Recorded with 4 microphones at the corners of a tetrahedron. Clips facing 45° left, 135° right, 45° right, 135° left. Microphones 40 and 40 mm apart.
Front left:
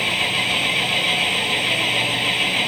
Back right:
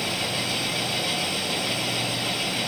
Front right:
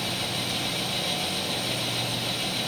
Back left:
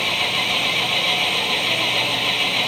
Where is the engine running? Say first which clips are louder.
Front left 7 dB, back left 9 dB; 95° left.